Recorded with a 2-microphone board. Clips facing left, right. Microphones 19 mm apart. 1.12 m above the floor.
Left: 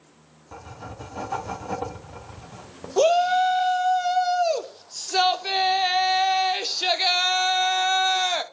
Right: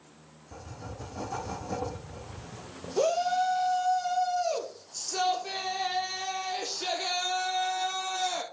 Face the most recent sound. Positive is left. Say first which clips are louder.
# left 7 dB
turn(degrees=45)  # may be behind; listen again after turning